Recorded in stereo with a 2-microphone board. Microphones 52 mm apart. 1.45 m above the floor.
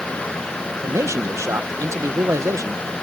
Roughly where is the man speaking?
Right.